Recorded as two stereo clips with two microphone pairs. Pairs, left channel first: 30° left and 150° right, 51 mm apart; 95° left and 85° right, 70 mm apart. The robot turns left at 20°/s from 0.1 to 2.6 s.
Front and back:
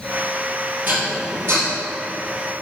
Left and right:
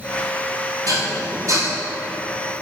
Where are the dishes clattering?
105° right, 2.5 m; by 1.7 s 120° right, 2.5 m.